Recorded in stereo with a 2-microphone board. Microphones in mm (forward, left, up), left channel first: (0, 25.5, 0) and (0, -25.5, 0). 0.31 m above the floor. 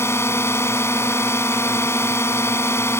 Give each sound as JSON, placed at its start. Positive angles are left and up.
{"t": 0.0, "sound": "a drone", "side_deg": 55}